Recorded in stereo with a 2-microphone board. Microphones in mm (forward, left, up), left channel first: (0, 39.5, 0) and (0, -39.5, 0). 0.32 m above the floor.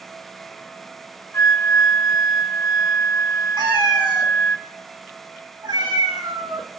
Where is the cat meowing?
70° right (ahead or behind), 1.6 m.